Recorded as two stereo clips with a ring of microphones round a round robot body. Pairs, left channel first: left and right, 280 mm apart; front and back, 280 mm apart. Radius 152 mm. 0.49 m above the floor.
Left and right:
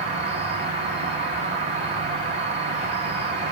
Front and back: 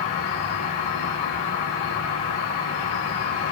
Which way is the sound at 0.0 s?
20° right.